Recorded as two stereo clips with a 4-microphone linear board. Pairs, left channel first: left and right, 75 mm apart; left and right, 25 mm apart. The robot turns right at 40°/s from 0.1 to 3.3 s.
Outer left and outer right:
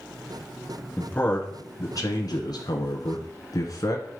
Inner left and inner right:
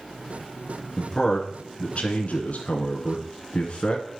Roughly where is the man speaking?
Ahead.